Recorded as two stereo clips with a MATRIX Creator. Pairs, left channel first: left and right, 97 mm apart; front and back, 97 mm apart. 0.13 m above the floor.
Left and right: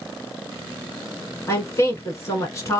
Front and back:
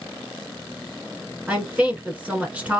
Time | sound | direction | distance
1.5 | a woman speaking | 115° left | 1.5 m